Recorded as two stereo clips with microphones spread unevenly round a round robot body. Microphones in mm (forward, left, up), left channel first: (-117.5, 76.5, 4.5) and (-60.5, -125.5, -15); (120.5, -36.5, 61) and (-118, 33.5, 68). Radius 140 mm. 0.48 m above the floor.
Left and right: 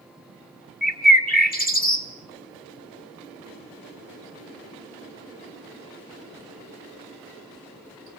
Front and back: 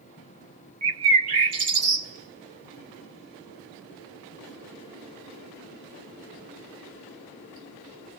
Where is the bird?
150° left, 3.5 m.